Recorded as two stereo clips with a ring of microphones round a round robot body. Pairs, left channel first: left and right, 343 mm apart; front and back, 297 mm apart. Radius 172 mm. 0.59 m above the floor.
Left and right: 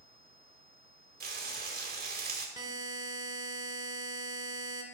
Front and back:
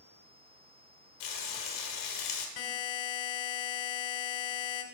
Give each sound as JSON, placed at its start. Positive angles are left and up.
{"t": 1.2, "sound": "frying", "azimuth_deg": -25, "distance_m": 1.7}
{"t": 2.6, "sound": "a buzzer", "azimuth_deg": -10, "distance_m": 1.3}